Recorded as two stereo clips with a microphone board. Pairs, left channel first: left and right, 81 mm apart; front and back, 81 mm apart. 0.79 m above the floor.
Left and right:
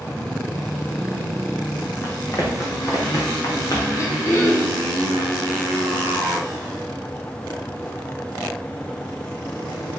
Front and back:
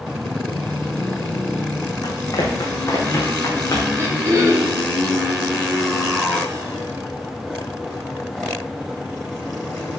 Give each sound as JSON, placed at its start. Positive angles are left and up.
{"t": 2.0, "sound": "running footsteps", "azimuth_deg": 35, "distance_m": 2.5}
{"t": 4.0, "sound": "throat clearing", "azimuth_deg": 130, "distance_m": 2.0}